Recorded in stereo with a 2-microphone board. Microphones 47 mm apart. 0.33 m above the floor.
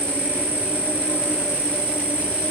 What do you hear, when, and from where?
0.0 s an insect: 35° right (ahead or behind), 2 m